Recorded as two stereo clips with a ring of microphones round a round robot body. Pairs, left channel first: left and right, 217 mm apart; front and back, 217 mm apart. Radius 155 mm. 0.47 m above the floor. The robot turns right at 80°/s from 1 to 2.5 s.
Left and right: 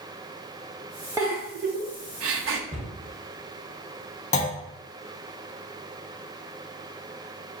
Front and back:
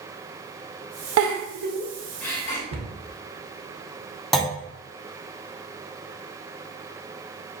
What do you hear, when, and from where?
1.2 s a giggle: 170° right, 0.6 m; by 2.6 s 65° right, 0.6 m
2.7 s a cupboard door: 160° right, 0.7 m
4.3 s a clunk: 85° left, 0.7 m